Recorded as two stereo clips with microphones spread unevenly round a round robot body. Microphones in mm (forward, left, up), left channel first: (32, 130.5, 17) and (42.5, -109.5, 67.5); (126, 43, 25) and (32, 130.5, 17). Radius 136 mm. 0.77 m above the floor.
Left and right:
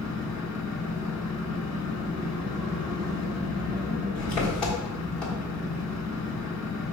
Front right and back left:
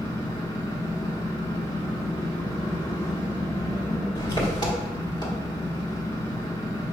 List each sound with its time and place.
0.0 s an engine running: 10° left, 1.5 m